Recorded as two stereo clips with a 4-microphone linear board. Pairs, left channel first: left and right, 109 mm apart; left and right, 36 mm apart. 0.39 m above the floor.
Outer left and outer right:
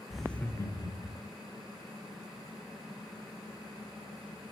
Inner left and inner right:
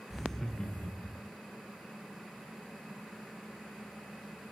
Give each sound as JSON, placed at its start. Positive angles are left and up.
{"t": 0.1, "sound": "laughter", "side_deg": -5, "distance_m": 0.9}